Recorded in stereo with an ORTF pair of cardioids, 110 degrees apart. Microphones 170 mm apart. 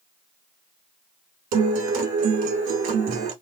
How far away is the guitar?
About 1.4 m.